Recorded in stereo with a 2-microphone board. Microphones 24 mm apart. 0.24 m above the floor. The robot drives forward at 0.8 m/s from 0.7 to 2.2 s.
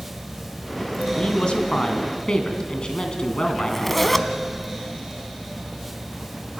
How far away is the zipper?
About 1.1 m.